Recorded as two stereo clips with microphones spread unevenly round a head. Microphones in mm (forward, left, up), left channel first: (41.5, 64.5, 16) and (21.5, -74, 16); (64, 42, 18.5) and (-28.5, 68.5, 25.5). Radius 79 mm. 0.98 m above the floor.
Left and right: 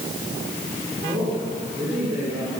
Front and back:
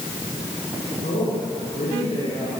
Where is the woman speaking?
25° right, 9 m; by 2.5 s 20° right, 10.5 m.